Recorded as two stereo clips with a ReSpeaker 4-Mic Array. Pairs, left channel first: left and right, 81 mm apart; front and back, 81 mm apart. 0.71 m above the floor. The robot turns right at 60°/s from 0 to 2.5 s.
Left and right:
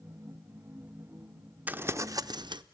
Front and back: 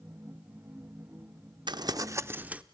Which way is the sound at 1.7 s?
160° right.